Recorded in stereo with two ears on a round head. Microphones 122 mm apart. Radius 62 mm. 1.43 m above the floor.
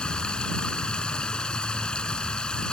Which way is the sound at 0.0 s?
5° left (ahead or behind).